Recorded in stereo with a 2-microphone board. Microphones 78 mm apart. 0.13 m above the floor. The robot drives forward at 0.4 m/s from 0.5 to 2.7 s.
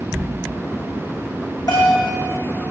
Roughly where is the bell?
Left.